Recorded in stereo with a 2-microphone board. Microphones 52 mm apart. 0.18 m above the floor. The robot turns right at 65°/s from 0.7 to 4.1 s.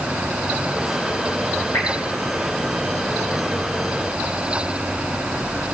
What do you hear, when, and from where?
1.7 s dripping: 65° left (ahead or behind), 3 m; by 1.9 s 60° left (ahead or behind), 3 m